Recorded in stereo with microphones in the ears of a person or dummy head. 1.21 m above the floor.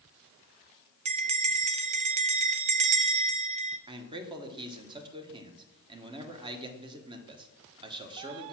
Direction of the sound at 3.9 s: 25° right (ahead or behind).